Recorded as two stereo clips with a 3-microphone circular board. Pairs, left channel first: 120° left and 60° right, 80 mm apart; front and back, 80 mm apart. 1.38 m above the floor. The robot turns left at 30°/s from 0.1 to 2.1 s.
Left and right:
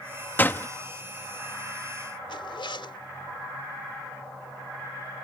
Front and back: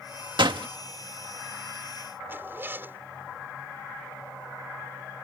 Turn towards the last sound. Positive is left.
turn(degrees=115)